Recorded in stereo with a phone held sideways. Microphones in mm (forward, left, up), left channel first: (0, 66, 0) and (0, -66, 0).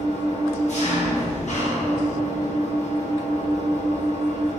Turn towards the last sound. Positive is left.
turn(degrees=60)  # may be behind; listen again after turning